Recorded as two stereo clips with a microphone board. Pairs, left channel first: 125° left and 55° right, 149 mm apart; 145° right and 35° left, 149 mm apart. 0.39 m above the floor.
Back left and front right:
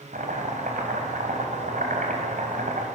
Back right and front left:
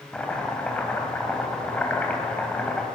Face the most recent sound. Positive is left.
turn(degrees=-65)